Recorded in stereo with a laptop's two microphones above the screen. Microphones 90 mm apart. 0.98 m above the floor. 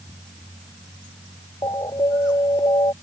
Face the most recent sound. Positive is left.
turn(degrees=50)  # may be behind; listen again after turning